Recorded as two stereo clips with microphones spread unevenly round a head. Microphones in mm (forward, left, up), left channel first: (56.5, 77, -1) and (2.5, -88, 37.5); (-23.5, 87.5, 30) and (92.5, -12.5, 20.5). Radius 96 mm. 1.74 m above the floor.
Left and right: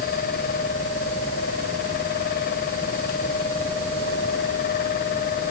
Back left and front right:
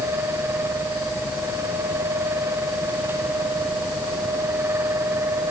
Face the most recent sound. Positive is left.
No sound to turn to.